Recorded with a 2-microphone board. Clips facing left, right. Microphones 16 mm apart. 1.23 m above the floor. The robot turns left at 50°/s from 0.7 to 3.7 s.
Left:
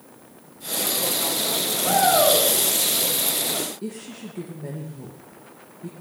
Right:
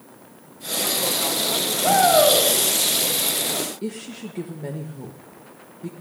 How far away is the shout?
About 7.5 m.